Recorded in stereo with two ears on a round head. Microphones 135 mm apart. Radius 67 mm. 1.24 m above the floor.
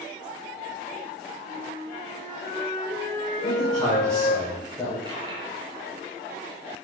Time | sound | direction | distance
1.4 | a flute | 45° left (ahead or behind) | 6 m
3.4 | a man speaking | 5° left (ahead or behind) | 6 m
5.0 | a dropped coin | 35° right (ahead or behind) | 4.5 m